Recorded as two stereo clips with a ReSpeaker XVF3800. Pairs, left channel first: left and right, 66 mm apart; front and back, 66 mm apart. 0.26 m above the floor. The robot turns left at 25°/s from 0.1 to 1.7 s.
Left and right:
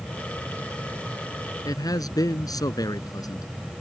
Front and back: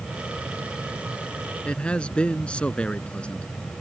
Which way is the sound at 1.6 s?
75° left.